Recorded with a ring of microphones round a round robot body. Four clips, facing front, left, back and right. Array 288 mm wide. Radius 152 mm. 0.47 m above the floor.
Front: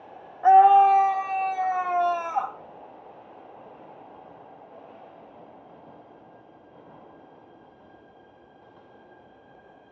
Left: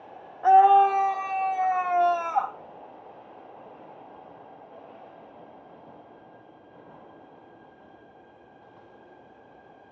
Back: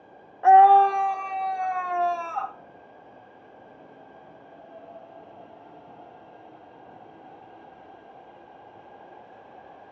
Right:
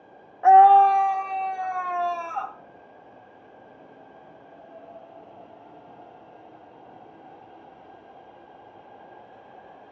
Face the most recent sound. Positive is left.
turn(degrees=45)